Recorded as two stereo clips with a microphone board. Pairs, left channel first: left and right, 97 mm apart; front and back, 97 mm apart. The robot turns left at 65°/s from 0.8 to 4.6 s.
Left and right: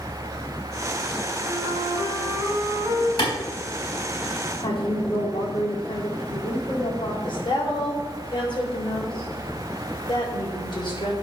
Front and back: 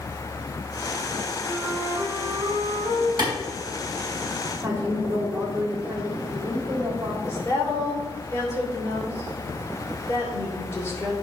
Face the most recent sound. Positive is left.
turn(degrees=60)